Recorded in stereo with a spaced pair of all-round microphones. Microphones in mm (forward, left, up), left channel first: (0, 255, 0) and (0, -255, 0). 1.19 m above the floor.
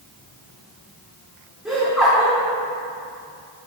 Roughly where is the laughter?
Centre.